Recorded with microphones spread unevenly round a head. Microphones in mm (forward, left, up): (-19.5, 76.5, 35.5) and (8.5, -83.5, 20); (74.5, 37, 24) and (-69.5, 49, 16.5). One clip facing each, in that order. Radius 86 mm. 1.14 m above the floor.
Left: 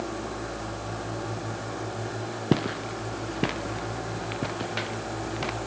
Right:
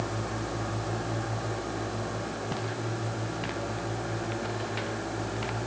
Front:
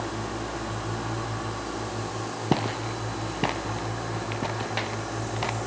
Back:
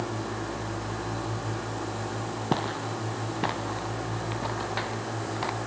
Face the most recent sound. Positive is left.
turn(degrees=65)